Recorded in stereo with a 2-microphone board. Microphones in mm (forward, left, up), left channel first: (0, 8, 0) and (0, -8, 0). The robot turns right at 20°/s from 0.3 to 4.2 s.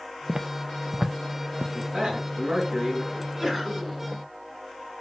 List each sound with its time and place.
0.3 s footsteps: 65° right (ahead or behind), 0.5 m; by 1.6 s 75° right (ahead or behind), 1.0 m
1.7 s a man speaking: 50° right (ahead or behind), 3.5 m; by 3.0 s 65° right (ahead or behind), 3.5 m
3.1 s a sneeze: 20° right (ahead or behind), 3 m; by 4.0 s 5° right (ahead or behind), 3 m